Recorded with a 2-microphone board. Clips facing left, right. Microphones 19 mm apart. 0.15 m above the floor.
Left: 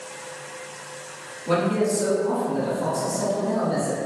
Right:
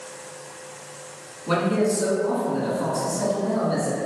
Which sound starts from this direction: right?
A man speaking, at 1.5 s.